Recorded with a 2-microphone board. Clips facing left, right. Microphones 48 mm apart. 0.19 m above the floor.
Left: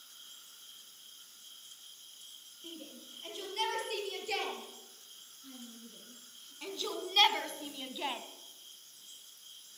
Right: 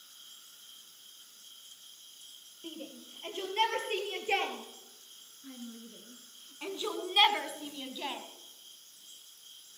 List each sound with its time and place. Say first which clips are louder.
2.6 s a shout: right 4 dB; 35° right (ahead or behind), 5 m; by 8.2 s 15° left (ahead or behind), 1.2 m